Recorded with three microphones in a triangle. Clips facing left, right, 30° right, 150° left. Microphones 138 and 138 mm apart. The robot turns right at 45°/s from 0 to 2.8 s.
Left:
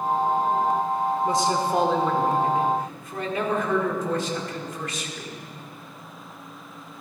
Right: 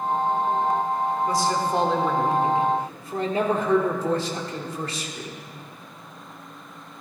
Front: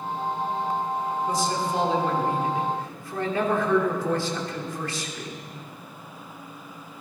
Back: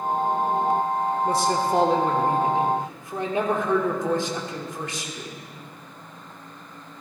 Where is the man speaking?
150° left, 1.8 m; by 5.4 s 140° right, 1.8 m.